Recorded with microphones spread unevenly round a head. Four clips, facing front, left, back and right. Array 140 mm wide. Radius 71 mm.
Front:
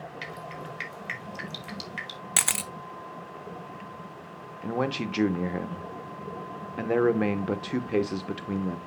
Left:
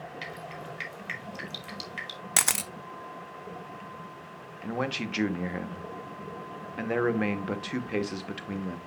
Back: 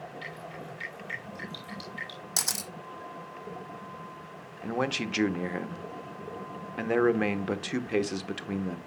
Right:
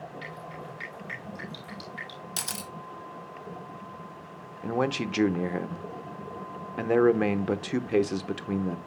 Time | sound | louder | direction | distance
0.2 | dripping | even, front 3 dB | 50° left | 4 m
2.4 | a camera shutter | left 8 dB, front 6 dB | 70° left | 0.7 m
4.6 | a man speaking | right 4 dB, front 2 dB | 65° right | 0.7 m